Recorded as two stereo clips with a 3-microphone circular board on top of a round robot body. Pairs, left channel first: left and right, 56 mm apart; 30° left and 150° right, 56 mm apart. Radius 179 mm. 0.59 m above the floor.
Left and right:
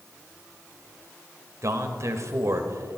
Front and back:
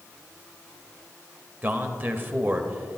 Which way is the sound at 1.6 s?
100° right.